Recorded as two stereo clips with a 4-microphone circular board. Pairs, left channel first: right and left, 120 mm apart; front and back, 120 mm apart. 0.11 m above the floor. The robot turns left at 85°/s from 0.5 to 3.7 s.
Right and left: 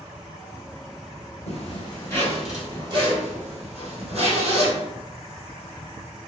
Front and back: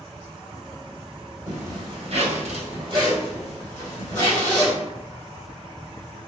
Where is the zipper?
100° right, 1.9 m; by 4.7 s 70° left, 1.9 m.